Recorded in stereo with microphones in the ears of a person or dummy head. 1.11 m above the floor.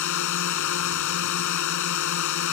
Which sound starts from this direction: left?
A drone, at 0.0 s.